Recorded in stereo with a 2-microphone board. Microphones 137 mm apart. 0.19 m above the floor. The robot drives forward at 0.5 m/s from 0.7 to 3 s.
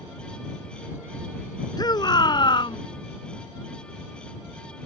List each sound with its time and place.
1.8 s a shout: 30° left (ahead or behind); by 2.8 s 35° left (ahead or behind)